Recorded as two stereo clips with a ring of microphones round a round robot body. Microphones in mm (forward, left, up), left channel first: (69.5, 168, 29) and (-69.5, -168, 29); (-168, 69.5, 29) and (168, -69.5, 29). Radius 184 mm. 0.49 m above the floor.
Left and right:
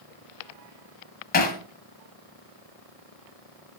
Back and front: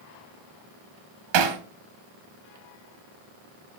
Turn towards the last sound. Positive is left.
turn(degrees=0)